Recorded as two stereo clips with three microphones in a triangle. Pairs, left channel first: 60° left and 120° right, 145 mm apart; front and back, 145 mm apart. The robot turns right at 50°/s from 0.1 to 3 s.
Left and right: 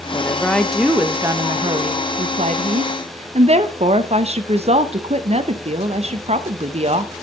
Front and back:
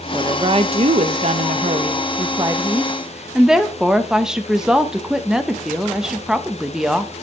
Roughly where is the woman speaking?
Behind left.